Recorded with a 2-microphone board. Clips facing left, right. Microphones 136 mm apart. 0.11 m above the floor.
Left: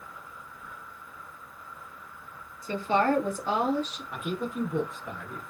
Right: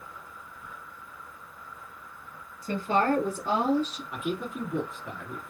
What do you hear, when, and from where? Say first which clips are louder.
2.6 s a woman speaking: even; 45° right (ahead or behind), 1.5 m; by 4.0 s 30° right (ahead or behind), 1.2 m
4.1 s a man speaking: left 2 dB; 5° right (ahead or behind), 1.3 m